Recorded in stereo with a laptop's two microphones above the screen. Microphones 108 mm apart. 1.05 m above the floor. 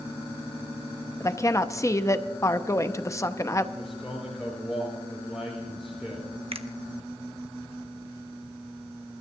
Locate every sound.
1.2 s a woman speaking: 30° left (ahead or behind), 0.7 m
3.8 s a man speaking: centre (ahead or behind), 4 m
6.5 s a finger snap: 60° right (ahead or behind), 0.9 m